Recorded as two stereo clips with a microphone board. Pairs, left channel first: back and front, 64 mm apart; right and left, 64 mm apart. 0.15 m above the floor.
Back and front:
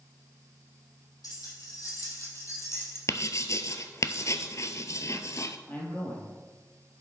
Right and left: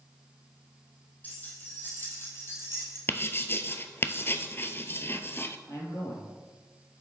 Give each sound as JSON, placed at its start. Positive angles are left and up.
{"t": 1.2, "sound": "keys jangling", "azimuth_deg": -150, "distance_m": 3.0}
{"t": 3.1, "sound": "writing", "azimuth_deg": -140, "distance_m": 0.6}
{"t": 5.7, "sound": "a man speaking", "azimuth_deg": -115, "distance_m": 3.5}